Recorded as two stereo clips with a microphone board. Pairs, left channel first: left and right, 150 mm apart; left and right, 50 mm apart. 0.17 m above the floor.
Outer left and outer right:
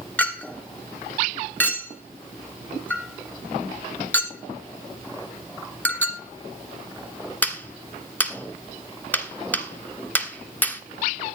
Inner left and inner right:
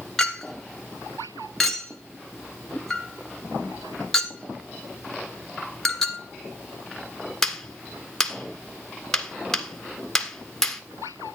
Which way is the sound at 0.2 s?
10° left (ahead or behind).